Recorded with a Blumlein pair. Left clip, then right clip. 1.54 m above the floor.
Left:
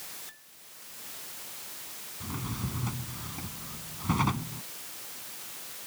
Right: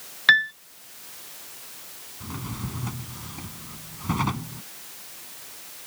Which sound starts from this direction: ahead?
A drawer, at 2.2 s.